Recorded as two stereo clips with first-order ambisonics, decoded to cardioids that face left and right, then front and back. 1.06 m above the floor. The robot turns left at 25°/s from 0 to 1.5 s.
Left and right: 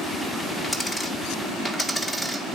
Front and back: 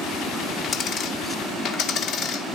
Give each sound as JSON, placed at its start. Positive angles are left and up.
{"t": 0.6, "sound": "a dropped coin", "azimuth_deg": 25, "distance_m": 0.7}